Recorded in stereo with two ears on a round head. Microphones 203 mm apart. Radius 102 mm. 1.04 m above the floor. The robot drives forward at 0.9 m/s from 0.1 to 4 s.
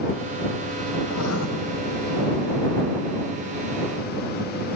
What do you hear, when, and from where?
1.1 s writing: 75° left (ahead or behind), 3.5 m; by 1.5 s 70° left (ahead or behind), 3.5 m